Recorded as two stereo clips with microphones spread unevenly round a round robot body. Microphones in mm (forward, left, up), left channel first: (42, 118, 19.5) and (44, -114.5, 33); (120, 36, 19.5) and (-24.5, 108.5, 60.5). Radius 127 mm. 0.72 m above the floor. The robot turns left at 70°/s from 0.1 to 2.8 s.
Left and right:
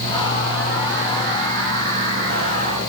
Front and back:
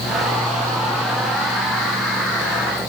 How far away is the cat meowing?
I don't hear a cat meowing.